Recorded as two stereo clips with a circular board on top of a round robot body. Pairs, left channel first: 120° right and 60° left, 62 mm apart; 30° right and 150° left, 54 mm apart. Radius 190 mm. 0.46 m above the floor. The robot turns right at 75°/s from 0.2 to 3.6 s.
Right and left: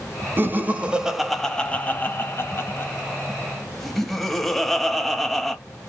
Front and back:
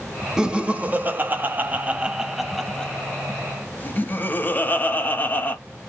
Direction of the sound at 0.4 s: 80° left.